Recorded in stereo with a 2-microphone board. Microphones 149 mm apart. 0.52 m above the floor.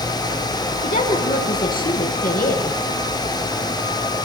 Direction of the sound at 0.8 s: 75° left (ahead or behind).